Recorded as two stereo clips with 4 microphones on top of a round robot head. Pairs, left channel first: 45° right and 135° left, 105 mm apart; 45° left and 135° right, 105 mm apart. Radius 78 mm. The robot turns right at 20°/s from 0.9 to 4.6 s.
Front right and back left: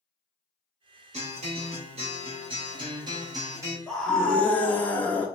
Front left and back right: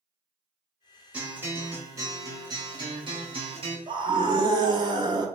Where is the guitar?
145° left, 1.7 m; by 3.8 s 160° right, 1.7 m.